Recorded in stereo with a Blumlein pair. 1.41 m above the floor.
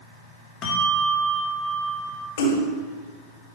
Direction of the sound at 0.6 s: 35° left.